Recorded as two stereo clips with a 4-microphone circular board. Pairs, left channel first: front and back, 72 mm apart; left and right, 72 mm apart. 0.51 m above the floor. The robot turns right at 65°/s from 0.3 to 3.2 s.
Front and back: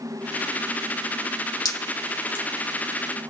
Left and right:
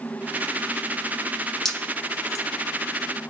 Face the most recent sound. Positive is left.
turn(degrees=110)